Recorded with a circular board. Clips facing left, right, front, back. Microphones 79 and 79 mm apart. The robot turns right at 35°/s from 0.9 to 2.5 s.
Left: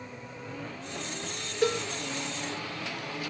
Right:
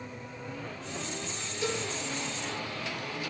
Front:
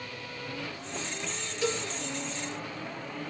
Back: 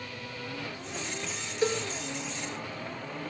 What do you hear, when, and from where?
1.6 s a cowbell: 125° left, 4 m; by 1.8 s 135° left, 4 m